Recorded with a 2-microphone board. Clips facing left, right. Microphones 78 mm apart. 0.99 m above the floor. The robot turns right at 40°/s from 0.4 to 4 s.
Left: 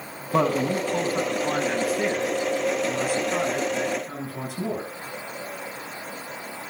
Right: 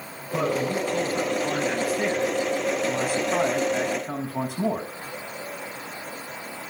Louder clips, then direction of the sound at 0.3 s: Left 3 dB; 120° left.